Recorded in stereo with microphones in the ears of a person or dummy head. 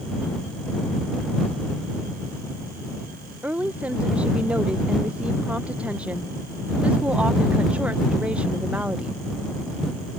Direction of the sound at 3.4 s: 10° right (ahead or behind).